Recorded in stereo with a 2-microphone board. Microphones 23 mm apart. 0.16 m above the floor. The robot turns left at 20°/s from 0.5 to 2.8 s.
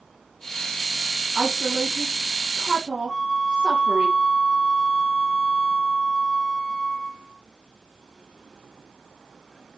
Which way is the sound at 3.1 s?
20° left (ahead or behind).